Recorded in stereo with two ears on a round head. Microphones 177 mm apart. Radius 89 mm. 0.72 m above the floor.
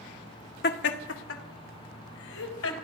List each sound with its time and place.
0.6 s laughter: 50° left (ahead or behind), 1.1 m; by 2.7 s 75° left (ahead or behind), 4 m